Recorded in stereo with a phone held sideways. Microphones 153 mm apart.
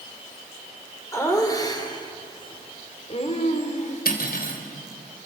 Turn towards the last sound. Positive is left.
turn(degrees=80)